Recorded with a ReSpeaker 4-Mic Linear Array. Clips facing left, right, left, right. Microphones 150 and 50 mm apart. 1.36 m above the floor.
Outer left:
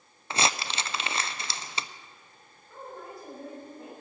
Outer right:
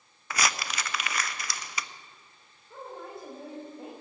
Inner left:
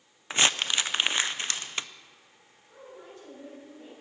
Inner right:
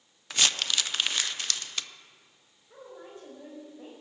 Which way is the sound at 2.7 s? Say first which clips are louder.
Outer right 1 dB, inner right 1 dB; 25° right (ahead or behind).